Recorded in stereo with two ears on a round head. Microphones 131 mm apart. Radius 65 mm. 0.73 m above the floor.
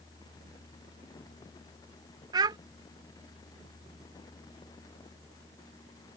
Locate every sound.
2.3 s a child speaking: 25° right (ahead or behind)